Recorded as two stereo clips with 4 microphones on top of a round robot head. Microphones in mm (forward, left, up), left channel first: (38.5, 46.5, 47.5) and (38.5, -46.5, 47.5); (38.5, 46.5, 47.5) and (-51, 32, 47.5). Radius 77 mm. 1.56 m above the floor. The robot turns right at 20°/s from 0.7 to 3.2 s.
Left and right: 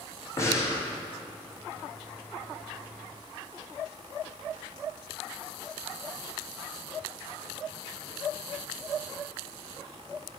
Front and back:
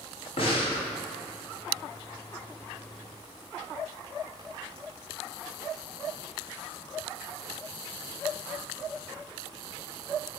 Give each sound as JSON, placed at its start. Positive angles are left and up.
{"t": 0.4, "sound": "breathing", "azimuth_deg": 30, "distance_m": 1.6}